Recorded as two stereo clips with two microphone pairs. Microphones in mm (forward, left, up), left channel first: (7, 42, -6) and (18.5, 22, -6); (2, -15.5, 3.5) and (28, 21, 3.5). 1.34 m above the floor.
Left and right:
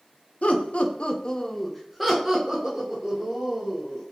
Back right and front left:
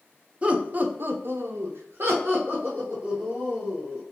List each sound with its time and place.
0.4 s laughter: 115° left, 0.6 m; by 4.0 s straight ahead, 1.6 m